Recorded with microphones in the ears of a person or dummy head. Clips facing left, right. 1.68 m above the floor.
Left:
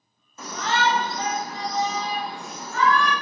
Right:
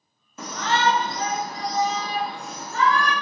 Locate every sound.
0.4 s a shout: 55° right (ahead or behind), 0.8 m; by 3.1 s 20° right (ahead or behind), 2 m